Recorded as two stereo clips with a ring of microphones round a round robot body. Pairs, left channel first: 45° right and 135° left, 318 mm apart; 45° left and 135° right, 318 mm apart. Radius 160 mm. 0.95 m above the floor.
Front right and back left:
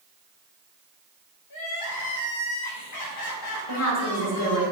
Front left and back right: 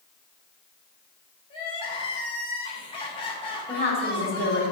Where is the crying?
30° right, 1.3 m.